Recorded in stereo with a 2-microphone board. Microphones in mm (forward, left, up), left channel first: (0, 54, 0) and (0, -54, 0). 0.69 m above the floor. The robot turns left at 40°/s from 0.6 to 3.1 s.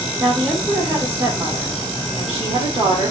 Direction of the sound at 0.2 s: 5° left.